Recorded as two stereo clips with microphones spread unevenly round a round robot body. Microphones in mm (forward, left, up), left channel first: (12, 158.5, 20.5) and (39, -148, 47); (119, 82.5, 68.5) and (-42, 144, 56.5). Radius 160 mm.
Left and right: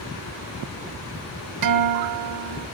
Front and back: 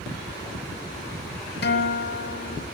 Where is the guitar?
55° right, 1.3 m.